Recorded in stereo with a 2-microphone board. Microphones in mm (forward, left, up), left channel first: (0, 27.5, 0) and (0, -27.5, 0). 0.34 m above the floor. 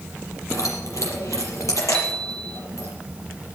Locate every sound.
0.5 s keys jangling: 80° left, 6 m
1.9 s a bicycle bell: 20° left (ahead or behind), 4.5 m